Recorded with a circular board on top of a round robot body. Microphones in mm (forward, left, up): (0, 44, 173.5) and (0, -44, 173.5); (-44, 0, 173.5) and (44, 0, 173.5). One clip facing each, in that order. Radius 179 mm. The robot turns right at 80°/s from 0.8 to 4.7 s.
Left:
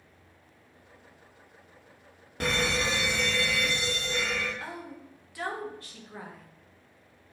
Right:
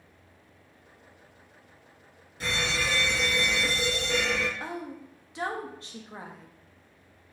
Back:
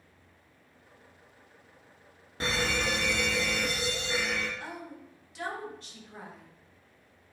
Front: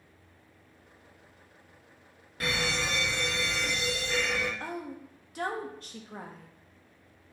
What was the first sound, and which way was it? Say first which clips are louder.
An alarm: left 2 dB, back 1 dB; 115° left.